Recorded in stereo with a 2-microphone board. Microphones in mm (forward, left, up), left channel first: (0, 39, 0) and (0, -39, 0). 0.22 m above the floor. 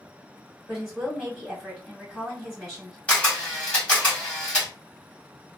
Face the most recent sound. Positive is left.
turn(degrees=15)  # may be behind; listen again after turning